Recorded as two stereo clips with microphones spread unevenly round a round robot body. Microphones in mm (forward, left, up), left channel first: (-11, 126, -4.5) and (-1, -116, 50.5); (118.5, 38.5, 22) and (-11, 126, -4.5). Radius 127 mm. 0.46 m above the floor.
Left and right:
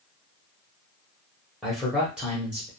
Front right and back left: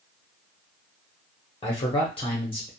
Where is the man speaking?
15° left, 0.9 m.